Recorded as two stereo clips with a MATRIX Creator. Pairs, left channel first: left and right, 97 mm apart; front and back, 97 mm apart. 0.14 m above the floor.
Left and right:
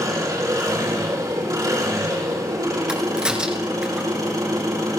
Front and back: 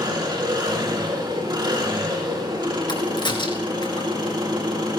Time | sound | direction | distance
0.0 | an engine running | 140° right | 4.5 m
2.9 | a crack | 10° right | 2.5 m